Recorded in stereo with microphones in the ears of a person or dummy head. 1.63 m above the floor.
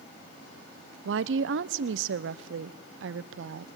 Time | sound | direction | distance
1.1 | a woman speaking | 70° right (ahead or behind) | 0.8 m